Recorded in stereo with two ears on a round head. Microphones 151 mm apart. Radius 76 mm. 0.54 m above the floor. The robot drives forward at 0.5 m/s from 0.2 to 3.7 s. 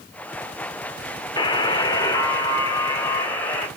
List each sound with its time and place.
1.4 s a buzzer: 25° left (ahead or behind), 1.4 m; by 3.7 s 15° left (ahead or behind), 2.5 m